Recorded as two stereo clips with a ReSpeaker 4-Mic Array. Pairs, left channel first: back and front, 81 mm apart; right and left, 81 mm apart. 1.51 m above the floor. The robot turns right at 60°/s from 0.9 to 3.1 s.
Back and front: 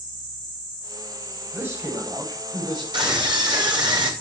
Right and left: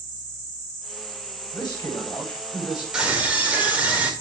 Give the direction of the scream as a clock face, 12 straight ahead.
12 o'clock.